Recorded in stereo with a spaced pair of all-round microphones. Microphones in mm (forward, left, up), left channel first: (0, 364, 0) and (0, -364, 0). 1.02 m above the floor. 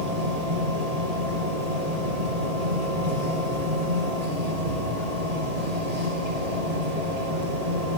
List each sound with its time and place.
0.0 s a machine running: 55° right (ahead or behind), 8.5 m